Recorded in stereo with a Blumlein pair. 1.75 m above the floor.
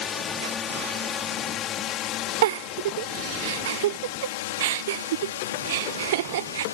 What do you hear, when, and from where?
0.0 s a drone: 20° left; by 6.8 s 70° left
2.4 s a giggle: 55° right